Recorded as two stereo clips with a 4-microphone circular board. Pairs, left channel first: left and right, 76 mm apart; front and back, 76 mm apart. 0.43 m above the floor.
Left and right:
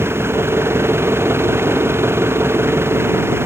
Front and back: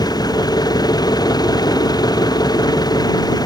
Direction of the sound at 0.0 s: 30° right.